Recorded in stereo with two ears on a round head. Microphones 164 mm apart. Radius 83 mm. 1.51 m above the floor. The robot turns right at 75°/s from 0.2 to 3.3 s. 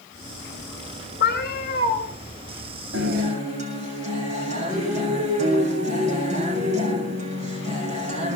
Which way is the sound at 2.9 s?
65° right (ahead or behind).